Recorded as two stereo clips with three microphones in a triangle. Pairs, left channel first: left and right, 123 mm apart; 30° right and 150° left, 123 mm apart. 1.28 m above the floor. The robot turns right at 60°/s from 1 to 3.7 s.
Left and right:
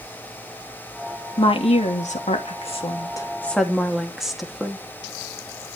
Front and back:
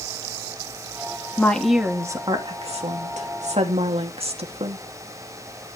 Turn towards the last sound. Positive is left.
turn(degrees=-175)